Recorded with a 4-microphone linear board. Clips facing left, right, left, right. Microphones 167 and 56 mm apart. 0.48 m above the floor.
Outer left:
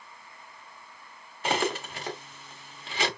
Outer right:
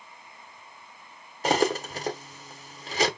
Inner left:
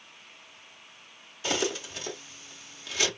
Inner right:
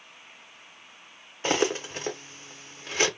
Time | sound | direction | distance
1.4 | cutlery clinking | 40° right (ahead or behind) | 0.8 m